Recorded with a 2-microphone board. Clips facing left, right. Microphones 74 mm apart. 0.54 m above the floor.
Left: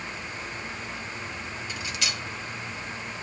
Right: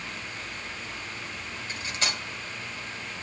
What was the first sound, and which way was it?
Cutlery clinking, 35° right (ahead or behind).